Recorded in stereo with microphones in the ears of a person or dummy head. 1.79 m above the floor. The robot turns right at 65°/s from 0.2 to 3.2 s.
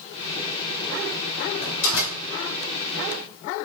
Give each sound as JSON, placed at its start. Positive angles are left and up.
{"t": 1.6, "sound": "a door slam", "azimuth_deg": 55, "distance_m": 5.0}